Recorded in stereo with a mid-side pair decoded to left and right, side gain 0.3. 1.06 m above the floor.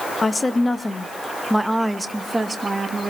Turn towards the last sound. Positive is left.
turn(degrees=-45)